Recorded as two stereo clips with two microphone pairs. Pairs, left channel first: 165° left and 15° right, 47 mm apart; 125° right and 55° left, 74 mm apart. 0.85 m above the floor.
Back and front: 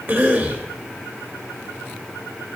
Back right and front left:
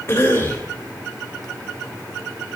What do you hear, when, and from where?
0.1 s a cough: 65° right, 3 m